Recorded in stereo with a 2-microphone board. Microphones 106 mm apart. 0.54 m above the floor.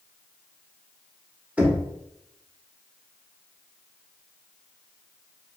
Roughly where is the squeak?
I don't hear a squeak.